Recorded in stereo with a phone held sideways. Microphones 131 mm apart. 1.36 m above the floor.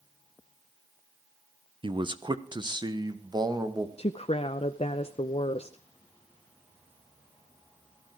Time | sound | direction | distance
1.8 | a man speaking | 40° right (ahead or behind) | 0.9 m
4.0 | a woman speaking | 50° left (ahead or behind) | 0.7 m